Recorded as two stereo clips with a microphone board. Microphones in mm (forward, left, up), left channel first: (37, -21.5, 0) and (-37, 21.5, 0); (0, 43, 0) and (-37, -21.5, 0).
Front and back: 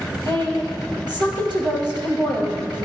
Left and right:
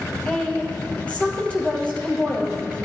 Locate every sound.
0.2 s a woman speaking: 135° left, 3 m